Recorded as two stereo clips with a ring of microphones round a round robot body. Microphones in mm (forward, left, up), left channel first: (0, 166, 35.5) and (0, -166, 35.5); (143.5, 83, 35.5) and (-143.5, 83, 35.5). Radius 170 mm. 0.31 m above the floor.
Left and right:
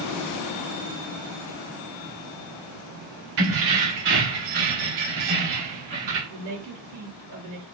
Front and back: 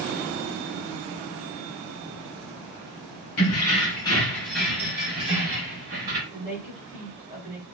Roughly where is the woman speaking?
Behind right.